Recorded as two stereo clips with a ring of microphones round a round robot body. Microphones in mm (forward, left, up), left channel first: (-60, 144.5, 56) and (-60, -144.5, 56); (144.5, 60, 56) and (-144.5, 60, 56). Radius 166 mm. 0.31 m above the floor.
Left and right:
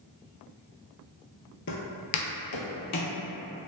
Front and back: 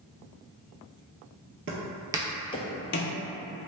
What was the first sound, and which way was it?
Footsteps, 135° left.